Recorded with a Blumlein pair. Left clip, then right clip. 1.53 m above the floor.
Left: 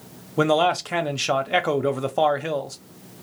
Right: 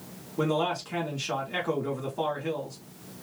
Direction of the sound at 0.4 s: 40° left.